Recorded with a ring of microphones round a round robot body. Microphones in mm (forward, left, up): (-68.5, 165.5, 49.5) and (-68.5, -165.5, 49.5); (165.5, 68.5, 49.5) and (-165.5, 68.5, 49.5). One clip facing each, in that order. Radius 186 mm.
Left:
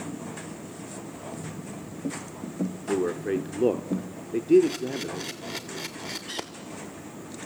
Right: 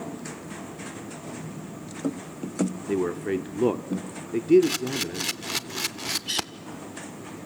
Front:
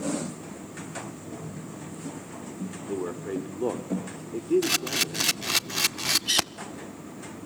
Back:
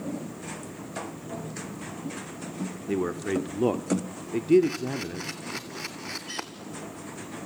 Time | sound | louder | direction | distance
2.9 | a man speaking | left 3 dB, back 4 dB | 160° right | 0.9 m
4.6 | a camera shutter | right 1 dB, back 3 dB | 25° right | 0.5 m